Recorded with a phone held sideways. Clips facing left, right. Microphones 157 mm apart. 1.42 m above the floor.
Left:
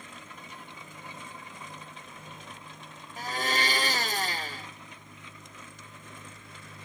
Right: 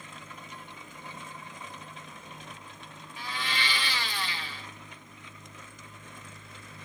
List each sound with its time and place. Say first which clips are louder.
3.2 s a blender: left 5 dB; 45° left (ahead or behind), 0.6 m